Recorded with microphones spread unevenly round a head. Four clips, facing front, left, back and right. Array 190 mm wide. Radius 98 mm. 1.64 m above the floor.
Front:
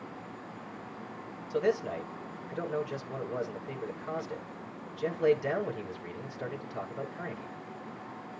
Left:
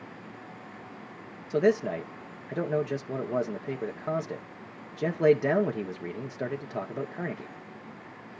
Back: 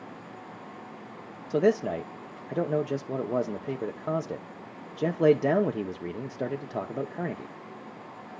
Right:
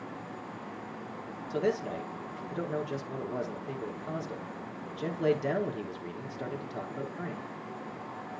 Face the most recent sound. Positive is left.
turn(degrees=155)